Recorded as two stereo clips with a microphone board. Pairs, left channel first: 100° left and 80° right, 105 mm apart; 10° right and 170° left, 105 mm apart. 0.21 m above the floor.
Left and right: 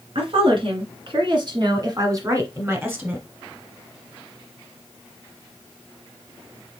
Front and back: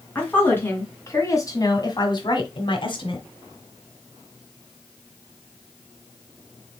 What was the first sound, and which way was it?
A woman speaking, 80° right.